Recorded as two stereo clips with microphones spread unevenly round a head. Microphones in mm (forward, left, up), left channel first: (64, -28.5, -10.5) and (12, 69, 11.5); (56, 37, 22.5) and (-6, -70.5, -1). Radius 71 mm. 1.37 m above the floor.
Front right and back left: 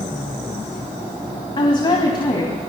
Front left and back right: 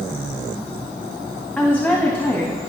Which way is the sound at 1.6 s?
25° right.